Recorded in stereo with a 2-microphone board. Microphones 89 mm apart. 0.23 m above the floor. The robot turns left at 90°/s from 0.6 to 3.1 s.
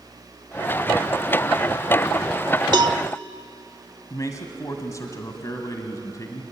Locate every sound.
2.7 s a cowbell: 55° right (ahead or behind), 0.7 m; by 3.0 s 35° right (ahead or behind), 0.7 m
4.1 s a man speaking: 40° left (ahead or behind), 1.9 m